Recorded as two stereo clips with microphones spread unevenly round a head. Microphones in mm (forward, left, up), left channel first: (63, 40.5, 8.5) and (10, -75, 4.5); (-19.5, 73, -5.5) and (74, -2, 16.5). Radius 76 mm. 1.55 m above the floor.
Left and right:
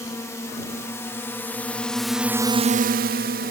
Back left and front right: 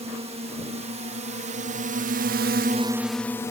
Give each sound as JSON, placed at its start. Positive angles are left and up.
{"t": 0.0, "sound": "a drone", "azimuth_deg": 0}